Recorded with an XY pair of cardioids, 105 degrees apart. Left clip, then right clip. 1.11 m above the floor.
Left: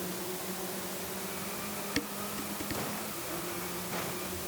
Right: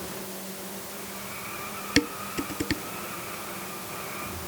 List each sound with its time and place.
2.0 s dishes clattering: 65° right